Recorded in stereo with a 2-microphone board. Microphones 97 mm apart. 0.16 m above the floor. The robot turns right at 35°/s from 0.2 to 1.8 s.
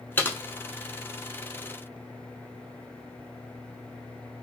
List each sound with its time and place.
0.2 s typing on a keyboard: 20° left (ahead or behind), 0.6 m; by 0.4 s 25° left (ahead or behind), 0.6 m